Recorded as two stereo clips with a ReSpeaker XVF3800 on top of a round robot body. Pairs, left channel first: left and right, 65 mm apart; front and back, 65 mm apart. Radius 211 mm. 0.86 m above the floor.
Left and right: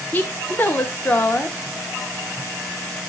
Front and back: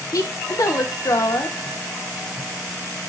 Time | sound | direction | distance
0.1 | a woman speaking | 25° left | 0.5 m